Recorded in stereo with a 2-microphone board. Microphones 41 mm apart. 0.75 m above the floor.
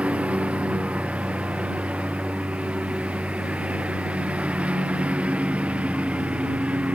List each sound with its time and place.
0.0 s a lawn mower: 30° right (ahead or behind)